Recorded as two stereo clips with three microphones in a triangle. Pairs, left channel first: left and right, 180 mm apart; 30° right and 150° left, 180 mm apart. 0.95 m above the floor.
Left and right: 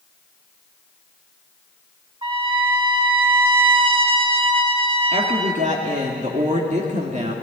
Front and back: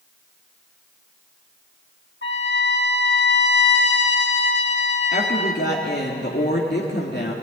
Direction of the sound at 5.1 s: 45° right.